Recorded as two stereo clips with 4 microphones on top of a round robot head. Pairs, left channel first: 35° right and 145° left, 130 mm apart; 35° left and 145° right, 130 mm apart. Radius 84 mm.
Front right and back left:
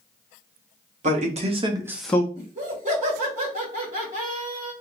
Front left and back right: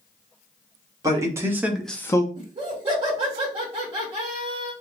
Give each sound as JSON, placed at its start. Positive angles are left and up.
{"t": 1.0, "sound": "a man speaking", "azimuth_deg": 155, "distance_m": 1.3}
{"t": 2.4, "sound": "laughter", "azimuth_deg": 165, "distance_m": 2.0}